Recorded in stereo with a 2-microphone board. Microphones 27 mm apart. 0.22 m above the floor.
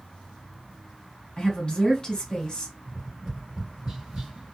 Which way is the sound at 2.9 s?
30° right (ahead or behind).